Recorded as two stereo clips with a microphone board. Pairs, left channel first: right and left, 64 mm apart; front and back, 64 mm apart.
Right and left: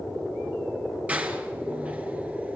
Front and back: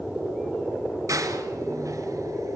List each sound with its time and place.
1.1 s a door slam: 155° left, 2.0 m